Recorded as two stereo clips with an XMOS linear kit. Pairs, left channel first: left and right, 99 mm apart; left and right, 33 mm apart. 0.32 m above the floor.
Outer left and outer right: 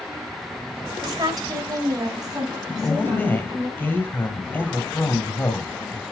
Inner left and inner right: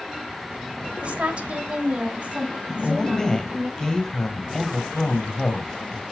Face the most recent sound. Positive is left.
turn(degrees=20)  # may be behind; listen again after turning